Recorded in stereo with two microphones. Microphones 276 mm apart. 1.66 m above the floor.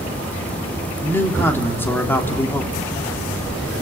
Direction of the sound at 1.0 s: 10° left (ahead or behind).